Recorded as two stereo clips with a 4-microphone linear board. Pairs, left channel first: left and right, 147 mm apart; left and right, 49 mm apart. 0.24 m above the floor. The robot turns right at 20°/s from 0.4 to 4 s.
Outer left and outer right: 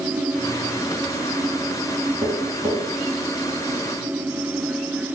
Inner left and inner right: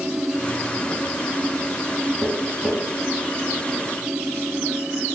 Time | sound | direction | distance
2.2 | tapping | 5° right (ahead or behind) | 0.9 m